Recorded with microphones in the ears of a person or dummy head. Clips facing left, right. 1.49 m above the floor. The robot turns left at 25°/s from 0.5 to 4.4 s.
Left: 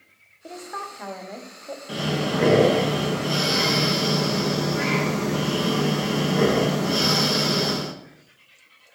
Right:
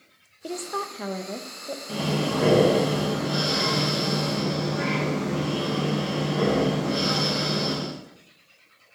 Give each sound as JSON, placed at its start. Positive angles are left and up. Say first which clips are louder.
{"t": 0.4, "sound": "a woman speaking", "louder": "right 5 dB", "azimuth_deg": -125, "distance_m": 0.5}
{"t": 1.9, "sound": "breathing", "louder": "left 1 dB", "azimuth_deg": 170, "distance_m": 1.0}